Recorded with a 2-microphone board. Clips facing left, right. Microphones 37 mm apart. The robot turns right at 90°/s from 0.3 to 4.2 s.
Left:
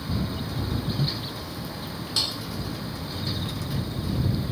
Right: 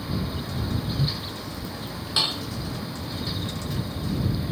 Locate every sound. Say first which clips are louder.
2.2 s dishes clattering: right 4 dB; 30° right (ahead or behind); by 2.5 s 55° right (ahead or behind)